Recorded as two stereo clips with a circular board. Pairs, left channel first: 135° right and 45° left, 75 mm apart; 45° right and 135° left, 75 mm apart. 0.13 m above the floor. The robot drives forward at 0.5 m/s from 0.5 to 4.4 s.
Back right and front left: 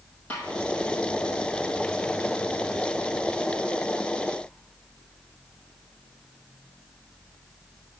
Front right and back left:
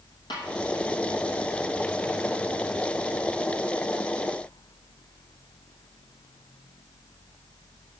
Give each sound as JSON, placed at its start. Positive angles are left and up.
{"t": 0.3, "sound": "a snare drum", "azimuth_deg": -65, "distance_m": 7.0}